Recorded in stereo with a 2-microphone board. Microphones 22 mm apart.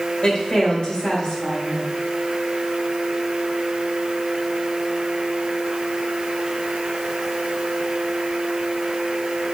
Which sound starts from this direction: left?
A woman speaking, at 0.2 s.